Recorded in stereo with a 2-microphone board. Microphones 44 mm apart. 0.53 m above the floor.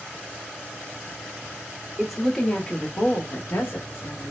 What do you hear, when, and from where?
2.0 s a woman speaking: 5° right (ahead or behind), 0.8 m; by 4.3 s 65° left (ahead or behind), 1.4 m